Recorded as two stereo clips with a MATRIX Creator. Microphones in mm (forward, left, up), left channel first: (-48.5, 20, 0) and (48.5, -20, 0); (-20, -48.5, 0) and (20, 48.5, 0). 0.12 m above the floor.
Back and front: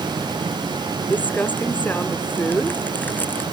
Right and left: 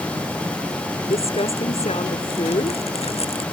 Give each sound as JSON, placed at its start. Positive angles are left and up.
{"t": 1.1, "sound": "crumpling", "azimuth_deg": -130}